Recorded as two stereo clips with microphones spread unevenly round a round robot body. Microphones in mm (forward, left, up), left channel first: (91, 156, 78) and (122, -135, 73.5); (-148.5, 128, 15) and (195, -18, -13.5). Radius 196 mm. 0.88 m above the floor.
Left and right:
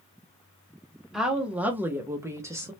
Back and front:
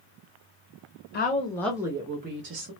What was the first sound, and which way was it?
A woman speaking, 170° right.